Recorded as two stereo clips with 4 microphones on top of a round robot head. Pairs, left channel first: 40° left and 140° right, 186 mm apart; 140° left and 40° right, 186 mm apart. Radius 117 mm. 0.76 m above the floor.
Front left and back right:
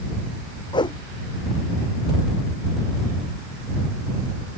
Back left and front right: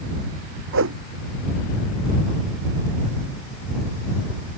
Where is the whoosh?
25° right.